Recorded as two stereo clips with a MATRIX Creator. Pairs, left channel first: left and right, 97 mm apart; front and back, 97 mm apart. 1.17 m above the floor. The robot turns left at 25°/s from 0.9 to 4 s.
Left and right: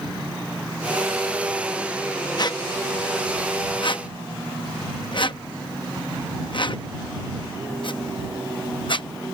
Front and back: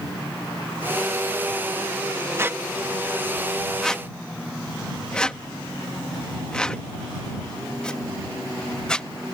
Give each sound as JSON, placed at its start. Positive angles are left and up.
{"t": 2.4, "sound": "a squeak", "azimuth_deg": 120}